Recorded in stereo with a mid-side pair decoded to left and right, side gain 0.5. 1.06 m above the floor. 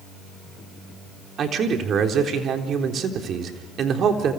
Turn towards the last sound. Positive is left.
turn(degrees=-55)